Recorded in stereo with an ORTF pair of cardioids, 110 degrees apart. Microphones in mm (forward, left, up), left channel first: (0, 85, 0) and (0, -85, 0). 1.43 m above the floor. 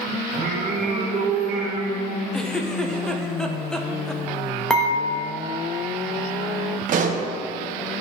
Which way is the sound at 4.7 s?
5° left.